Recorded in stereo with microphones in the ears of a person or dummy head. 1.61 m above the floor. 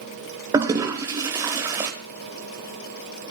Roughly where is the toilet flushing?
Centre.